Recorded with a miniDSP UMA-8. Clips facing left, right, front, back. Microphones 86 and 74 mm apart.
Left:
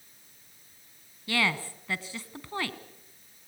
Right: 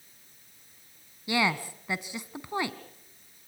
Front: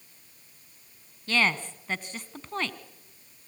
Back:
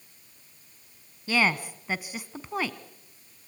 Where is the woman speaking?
115° right, 1.0 m.